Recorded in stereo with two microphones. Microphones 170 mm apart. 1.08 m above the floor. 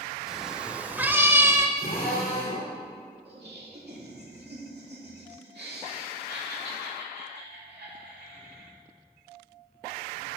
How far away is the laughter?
About 2.5 m.